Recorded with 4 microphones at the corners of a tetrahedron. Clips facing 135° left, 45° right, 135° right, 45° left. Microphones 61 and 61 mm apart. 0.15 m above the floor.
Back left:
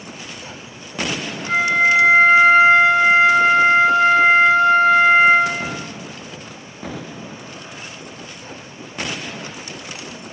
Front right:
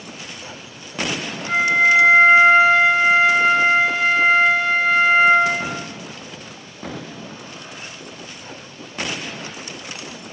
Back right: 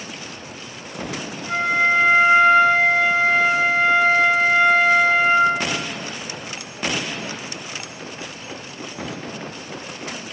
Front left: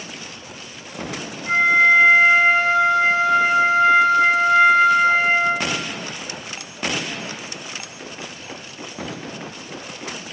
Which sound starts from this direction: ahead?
A flute, at 1.5 s.